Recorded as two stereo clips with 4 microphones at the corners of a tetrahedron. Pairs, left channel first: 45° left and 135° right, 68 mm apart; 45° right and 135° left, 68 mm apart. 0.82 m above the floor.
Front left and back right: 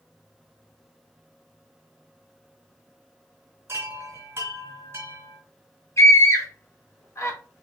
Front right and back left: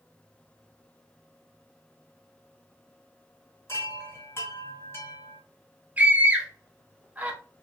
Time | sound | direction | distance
3.7 | a chime | 85° right | 1.2 m
6.0 | a scream | 75° left | 1.0 m